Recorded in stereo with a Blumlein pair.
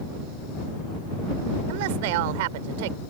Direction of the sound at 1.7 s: 50° right.